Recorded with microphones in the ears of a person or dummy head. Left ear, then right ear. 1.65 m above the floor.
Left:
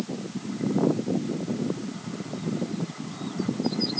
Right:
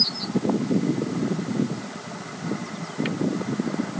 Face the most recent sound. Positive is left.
No sound to turn to.